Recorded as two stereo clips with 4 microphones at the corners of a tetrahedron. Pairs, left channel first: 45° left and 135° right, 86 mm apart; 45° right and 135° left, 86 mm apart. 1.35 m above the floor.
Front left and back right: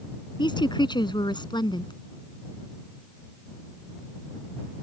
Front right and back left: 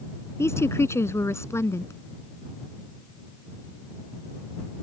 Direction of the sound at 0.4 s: 15° left.